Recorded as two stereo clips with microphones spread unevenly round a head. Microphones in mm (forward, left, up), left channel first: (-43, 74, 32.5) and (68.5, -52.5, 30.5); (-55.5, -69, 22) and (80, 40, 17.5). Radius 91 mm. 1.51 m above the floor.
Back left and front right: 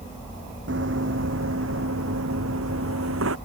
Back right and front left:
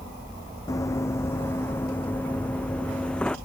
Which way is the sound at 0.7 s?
70° right.